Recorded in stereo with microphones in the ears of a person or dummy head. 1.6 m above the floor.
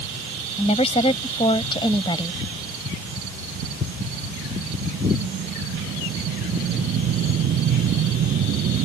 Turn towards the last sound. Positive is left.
turn(degrees=25)  # may be behind; listen again after turning